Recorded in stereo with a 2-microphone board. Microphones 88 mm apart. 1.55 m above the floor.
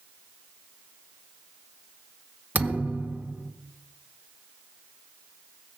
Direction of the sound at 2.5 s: 20° right (ahead or behind).